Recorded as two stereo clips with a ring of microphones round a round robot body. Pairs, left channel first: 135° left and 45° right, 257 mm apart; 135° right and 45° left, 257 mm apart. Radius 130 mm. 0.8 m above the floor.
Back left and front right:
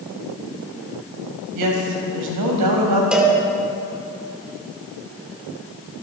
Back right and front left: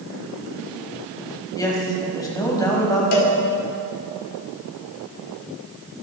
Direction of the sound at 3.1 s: 130° right.